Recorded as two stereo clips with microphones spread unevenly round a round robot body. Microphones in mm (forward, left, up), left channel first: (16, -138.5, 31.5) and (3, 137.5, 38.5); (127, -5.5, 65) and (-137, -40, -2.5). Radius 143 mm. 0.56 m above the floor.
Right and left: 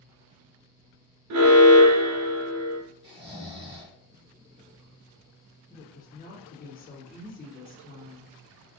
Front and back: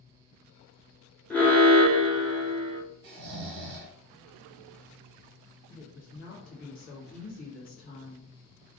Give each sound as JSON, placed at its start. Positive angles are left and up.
{"t": 1.3, "sound": "an alarm", "azimuth_deg": 100, "distance_m": 0.7}
{"t": 3.0, "sound": "snoring", "azimuth_deg": 170, "distance_m": 0.7}
{"t": 5.7, "sound": "a woman speaking", "azimuth_deg": -50, "distance_m": 1.3}